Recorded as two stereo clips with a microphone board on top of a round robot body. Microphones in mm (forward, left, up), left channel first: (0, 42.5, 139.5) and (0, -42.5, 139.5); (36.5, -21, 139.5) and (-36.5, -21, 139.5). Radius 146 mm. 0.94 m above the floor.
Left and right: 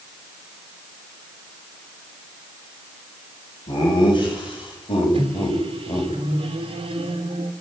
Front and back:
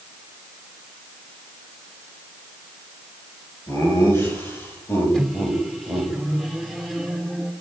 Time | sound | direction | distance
3.7 | laughter | 55° left | 7.5 m
5.1 | a microwave | 85° right | 2.5 m